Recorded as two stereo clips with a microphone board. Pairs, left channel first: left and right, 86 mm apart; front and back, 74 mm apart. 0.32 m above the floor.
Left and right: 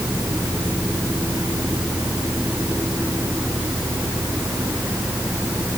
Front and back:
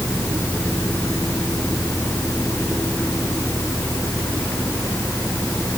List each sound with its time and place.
Only background noise.